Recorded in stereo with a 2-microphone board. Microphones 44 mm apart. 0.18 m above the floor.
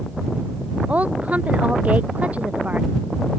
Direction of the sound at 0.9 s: 35° right (ahead or behind).